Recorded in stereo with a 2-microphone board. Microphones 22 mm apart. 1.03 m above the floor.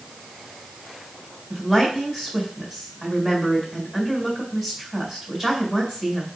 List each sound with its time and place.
1.5 s a woman speaking: 20° right (ahead or behind), 3.5 m